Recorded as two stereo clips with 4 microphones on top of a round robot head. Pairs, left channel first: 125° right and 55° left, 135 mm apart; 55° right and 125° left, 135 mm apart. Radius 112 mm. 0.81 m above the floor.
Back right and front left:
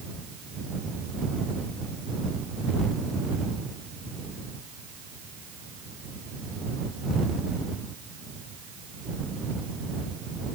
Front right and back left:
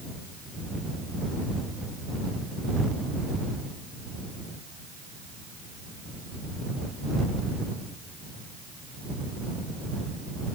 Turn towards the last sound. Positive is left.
No sound to turn to.